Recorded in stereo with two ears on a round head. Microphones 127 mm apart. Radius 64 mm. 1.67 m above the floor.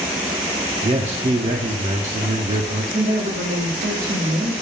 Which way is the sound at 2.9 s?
70° right (ahead or behind).